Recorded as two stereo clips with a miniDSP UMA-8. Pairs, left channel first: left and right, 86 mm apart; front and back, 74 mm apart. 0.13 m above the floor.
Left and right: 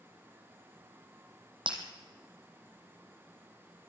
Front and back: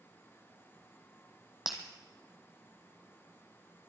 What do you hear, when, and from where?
1.7 s breaking glass: 95° right, 3 m